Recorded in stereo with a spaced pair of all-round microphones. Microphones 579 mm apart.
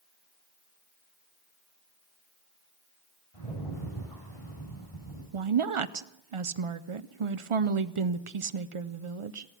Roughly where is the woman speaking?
Right.